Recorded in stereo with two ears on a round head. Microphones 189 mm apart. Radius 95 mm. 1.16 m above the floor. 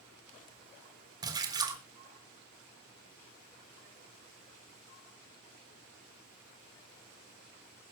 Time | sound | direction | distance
1.2 | a splash | 20° right (ahead or behind) | 3.5 m